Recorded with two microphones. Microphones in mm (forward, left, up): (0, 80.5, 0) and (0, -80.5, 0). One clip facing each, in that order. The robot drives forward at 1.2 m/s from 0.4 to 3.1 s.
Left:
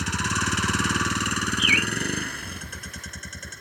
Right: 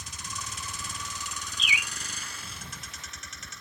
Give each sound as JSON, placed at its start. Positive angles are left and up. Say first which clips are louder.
{"t": 0.0, "sound": "a vehicle", "louder": "left 14 dB", "side_deg": 85}
{"t": 1.6, "sound": "a bird", "louder": "left 11 dB", "side_deg": -25}